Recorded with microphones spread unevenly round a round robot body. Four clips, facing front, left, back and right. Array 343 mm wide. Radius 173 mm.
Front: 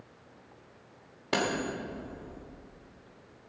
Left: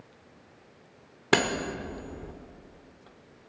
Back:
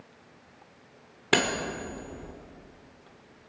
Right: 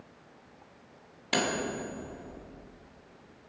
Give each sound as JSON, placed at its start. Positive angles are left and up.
{"t": 1.3, "sound": "cutlery clinking", "azimuth_deg": 120, "distance_m": 1.4}